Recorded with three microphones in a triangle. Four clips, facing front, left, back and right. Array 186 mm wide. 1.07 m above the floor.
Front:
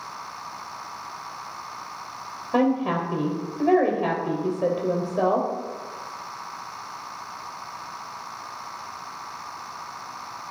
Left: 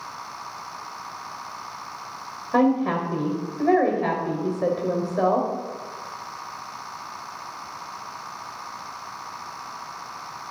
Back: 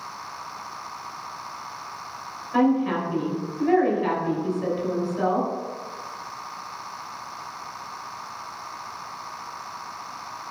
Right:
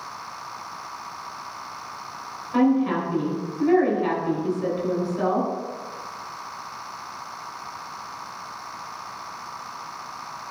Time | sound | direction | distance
2.5 | a woman speaking | 40° left | 4 m